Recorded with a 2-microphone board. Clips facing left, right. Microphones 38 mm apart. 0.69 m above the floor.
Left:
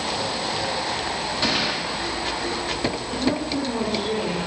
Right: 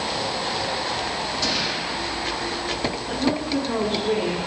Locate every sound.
1.4 s a gunshot: 30° left (ahead or behind), 1.1 m
3.1 s a woman speaking: 75° right (ahead or behind), 4.5 m